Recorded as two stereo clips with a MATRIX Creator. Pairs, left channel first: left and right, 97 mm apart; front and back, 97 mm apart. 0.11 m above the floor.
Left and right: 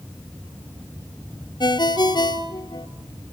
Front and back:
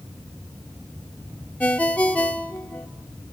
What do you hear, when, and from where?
1.6 s a ringtone: 70° left, 1.4 m